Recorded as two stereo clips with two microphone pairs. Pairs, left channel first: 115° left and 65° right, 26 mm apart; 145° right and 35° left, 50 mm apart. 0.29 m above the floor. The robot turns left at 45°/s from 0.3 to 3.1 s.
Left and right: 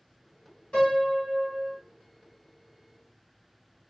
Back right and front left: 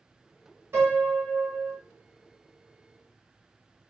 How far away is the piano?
About 3.5 m.